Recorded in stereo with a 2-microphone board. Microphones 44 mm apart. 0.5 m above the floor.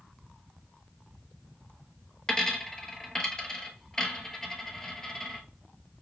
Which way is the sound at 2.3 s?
15° left (ahead or behind).